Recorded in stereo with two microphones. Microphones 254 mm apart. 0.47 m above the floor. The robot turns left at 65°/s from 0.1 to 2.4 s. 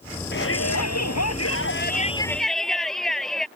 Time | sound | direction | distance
0.3 | a shout | 140° left | ?